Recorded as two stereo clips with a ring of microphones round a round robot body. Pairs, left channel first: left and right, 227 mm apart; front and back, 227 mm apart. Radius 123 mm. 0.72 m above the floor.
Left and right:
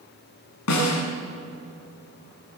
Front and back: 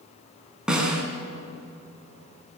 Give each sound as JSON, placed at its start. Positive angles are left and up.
{"t": 0.7, "sound": "a snare drum", "azimuth_deg": 95, "distance_m": 6.0}